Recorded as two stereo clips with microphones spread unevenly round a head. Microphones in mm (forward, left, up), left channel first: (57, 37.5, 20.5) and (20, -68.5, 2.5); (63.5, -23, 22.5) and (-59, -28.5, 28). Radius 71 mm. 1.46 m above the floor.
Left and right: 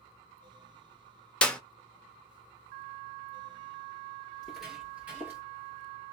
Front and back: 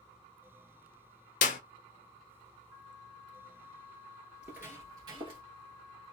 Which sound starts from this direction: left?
Footsteps, at 4.3 s.